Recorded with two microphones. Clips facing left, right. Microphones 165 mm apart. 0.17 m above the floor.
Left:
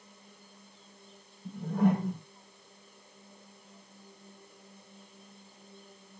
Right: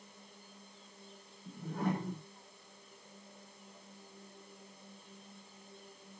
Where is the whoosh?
55° left (ahead or behind), 3.5 m.